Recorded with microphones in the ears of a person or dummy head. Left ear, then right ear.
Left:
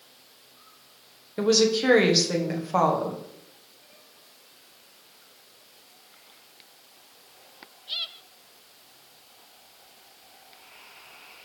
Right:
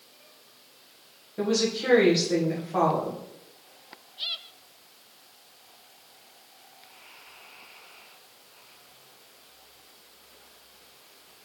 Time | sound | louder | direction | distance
1.4 | a woman speaking | left 5 dB | 85° left | 1.3 m